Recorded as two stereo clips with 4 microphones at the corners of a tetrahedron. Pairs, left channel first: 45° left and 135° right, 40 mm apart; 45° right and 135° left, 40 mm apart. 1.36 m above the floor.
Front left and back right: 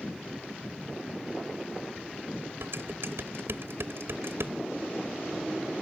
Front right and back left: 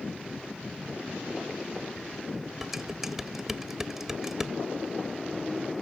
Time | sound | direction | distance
2.6 | dishes clattering | 145° right | ?